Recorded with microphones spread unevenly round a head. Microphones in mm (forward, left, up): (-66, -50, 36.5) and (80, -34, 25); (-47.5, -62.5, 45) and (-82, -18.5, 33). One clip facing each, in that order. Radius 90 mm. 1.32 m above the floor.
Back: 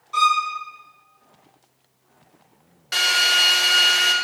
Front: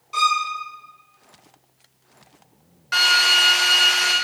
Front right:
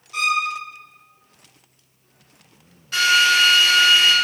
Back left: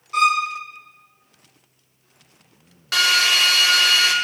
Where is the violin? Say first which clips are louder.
Back 2 dB, back left 3 dB; 85° left, 1.1 m.